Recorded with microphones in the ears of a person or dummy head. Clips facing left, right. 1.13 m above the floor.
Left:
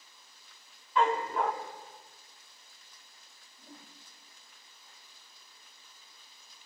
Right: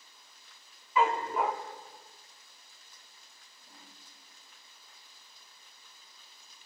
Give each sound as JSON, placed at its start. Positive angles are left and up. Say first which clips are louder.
{"t": 1.0, "sound": "a dog barking", "louder": "even", "side_deg": -5, "distance_m": 1.1}
{"t": 3.6, "sound": "a whoosh", "louder": "left 6 dB", "side_deg": 30, "distance_m": 2.0}